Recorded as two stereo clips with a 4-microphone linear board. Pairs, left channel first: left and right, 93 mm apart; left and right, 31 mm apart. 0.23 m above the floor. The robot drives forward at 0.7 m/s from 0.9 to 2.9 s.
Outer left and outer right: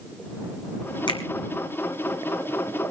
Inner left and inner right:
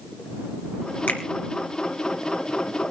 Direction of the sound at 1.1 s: 60° left (ahead or behind).